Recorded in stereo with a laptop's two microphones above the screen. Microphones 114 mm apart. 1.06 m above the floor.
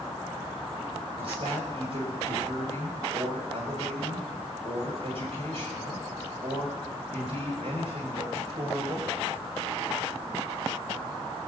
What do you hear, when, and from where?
1.2 s a woman speaking: 55° right (ahead or behind), 6 m